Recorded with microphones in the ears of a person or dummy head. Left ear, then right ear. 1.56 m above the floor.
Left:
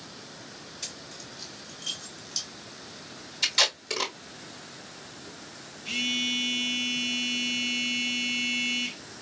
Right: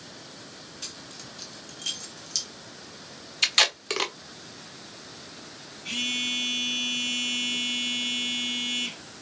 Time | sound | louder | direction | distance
0.8 | keys jangling | even | 15° right (ahead or behind) | 0.6 m
3.4 | tape being pulled | right 2 dB | 40° right (ahead or behind) | 0.8 m
5.8 | a phone buzzing | even | 65° right (ahead or behind) | 2.5 m